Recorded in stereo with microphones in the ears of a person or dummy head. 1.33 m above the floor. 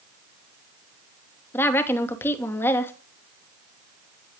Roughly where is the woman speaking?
Centre.